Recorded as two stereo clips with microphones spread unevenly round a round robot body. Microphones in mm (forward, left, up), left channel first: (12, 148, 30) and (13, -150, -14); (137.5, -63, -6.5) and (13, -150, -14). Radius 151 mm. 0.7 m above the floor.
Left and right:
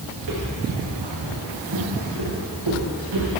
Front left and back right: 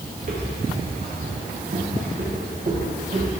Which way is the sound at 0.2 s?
110° right.